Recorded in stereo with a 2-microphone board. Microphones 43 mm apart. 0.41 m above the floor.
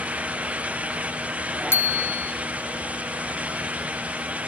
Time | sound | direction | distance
1.7 | a bicycle bell | 65° left (ahead or behind) | 3 m